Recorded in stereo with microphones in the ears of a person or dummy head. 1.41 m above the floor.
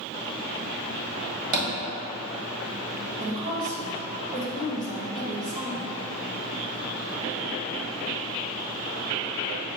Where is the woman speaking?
30° right (ahead or behind), 1.2 m.